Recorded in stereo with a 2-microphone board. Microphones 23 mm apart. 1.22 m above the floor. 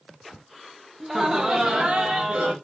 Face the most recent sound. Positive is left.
turn(degrees=-60)  # may be behind; listen again after turning